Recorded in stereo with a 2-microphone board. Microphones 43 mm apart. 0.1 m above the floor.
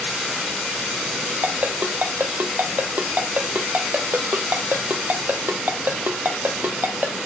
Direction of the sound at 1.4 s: 55° right (ahead or behind).